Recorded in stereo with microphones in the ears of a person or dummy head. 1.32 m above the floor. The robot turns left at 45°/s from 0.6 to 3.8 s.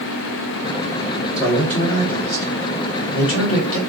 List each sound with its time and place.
1.4 s a man speaking: 5° right (ahead or behind), 1.2 m; by 3.8 s 70° left (ahead or behind), 1.2 m